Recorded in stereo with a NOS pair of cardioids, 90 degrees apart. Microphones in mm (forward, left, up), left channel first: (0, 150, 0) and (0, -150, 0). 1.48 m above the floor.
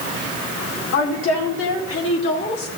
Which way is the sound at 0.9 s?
70° left.